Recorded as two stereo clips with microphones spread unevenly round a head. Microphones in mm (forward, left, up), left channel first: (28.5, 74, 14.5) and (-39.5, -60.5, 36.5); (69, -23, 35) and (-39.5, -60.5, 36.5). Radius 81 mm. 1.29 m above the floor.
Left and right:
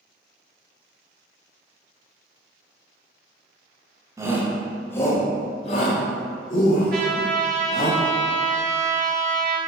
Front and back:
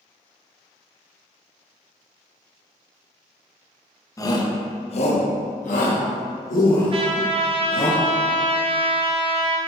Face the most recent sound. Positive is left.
turn(degrees=-140)